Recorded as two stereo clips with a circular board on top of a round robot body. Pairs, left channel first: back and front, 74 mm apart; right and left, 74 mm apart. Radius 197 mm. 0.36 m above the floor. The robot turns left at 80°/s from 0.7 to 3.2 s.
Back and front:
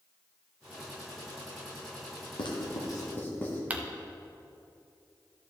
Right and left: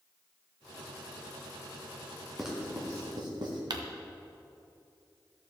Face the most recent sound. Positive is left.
turn(degrees=70)